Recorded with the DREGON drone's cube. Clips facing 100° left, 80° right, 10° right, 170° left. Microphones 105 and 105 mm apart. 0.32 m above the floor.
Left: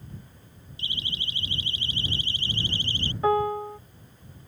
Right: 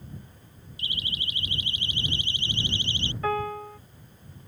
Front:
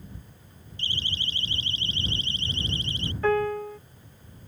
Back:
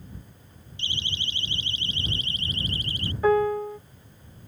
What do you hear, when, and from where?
0.8 s a siren: 40° left; by 3.1 s 55° left
3.2 s a piano: 110° left